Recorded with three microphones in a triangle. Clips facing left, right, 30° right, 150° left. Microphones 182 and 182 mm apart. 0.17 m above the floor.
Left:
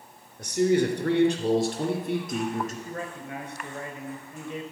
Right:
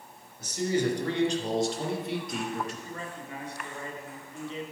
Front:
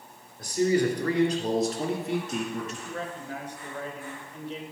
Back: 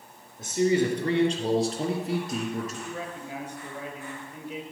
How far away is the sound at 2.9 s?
About 2 m.